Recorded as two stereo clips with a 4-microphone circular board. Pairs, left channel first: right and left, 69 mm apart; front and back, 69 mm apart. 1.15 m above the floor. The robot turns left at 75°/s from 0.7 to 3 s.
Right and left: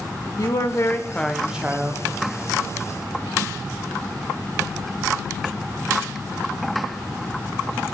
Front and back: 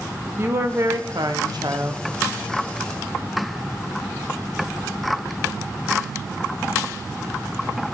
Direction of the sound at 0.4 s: 125° right.